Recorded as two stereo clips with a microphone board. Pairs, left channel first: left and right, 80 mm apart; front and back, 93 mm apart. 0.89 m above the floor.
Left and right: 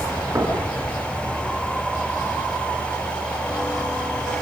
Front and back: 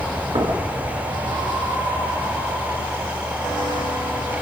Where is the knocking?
150° right, 8 m.